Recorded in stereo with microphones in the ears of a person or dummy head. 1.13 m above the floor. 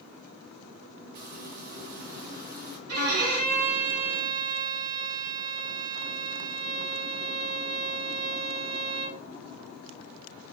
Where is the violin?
80° right, 2.5 m.